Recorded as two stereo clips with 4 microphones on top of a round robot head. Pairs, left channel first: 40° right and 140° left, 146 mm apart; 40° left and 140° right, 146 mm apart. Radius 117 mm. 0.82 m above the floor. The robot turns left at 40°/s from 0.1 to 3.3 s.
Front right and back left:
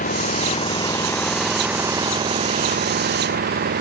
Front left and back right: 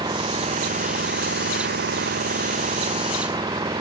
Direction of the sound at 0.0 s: 75° right.